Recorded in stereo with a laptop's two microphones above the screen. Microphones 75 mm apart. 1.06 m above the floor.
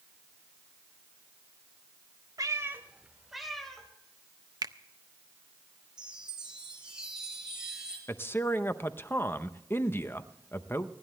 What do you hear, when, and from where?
2.4 s a cat meowing: 50° right (ahead or behind), 0.9 m; by 3.9 s 5° left (ahead or behind), 2.5 m
4.6 s a finger snap: 55° right (ahead or behind), 0.5 m
6.0 s a chime: 10° right (ahead or behind), 6 m
8.1 s a man speaking: 30° left (ahead or behind), 0.6 m